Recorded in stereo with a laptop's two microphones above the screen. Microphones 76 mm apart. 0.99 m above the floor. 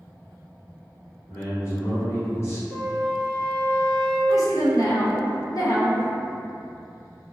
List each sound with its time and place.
1.3 s a man speaking: 35° left (ahead or behind), 1.0 m
2.7 s a flute: 40° left (ahead or behind), 1.3 m
4.3 s a woman speaking: 45° left (ahead or behind), 0.5 m